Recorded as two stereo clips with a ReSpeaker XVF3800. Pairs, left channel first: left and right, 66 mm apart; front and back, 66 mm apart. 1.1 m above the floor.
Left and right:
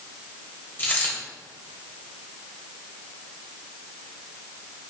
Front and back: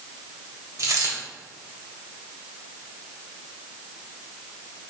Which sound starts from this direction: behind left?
A dropped coin, at 0.8 s.